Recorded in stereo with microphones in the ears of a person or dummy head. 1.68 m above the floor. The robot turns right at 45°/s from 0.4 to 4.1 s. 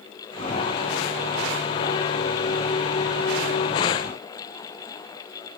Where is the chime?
No chime in this recording.